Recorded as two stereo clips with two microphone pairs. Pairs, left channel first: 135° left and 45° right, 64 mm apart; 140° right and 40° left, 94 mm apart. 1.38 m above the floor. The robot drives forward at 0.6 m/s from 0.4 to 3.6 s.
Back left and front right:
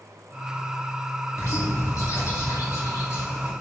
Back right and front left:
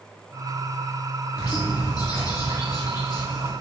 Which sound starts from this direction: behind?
A bird, at 1.4 s.